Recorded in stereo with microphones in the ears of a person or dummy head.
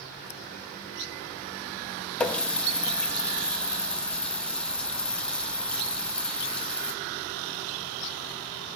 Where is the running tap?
15° left (ahead or behind), 0.5 m.